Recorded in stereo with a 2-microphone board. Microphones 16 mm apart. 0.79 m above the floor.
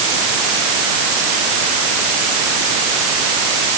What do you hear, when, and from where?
Only background noise.